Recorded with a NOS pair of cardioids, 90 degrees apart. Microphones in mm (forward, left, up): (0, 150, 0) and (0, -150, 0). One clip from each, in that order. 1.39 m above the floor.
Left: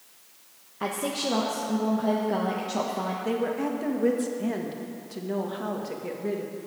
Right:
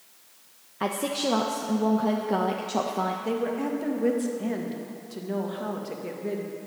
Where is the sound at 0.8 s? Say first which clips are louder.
Right 2 dB; 20° right, 1.2 m.